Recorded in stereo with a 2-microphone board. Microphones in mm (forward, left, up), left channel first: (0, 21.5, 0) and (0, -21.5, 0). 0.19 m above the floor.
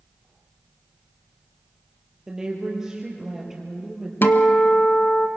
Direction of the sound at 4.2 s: 55° left (ahead or behind).